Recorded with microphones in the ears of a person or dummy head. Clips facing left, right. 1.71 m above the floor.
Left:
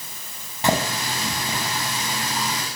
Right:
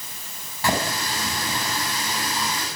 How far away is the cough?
No cough in this recording.